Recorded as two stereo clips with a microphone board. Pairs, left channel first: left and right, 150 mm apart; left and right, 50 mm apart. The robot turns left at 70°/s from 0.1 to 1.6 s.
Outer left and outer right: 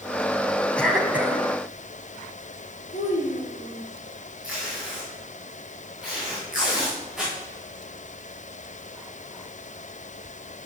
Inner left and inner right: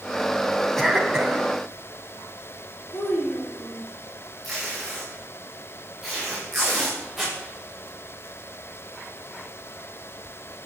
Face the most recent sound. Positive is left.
turn(degrees=-5)  # may be behind; listen again after turning